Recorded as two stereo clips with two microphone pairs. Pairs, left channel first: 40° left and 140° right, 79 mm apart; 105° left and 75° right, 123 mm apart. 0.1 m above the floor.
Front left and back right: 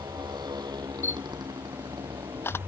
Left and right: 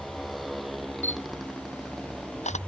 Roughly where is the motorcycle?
Behind.